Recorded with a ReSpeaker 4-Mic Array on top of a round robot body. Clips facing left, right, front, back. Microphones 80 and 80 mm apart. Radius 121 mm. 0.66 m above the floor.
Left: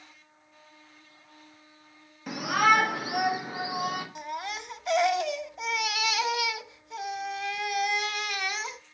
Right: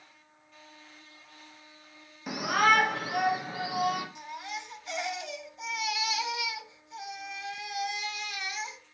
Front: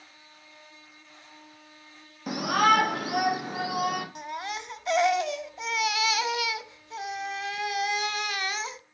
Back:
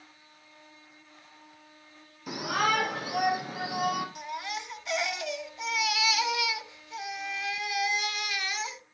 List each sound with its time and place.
2.3 s a shout: 10° right, 1.4 m; by 4.0 s 25° left, 2.5 m
4.2 s a baby crying: 50° left, 0.5 m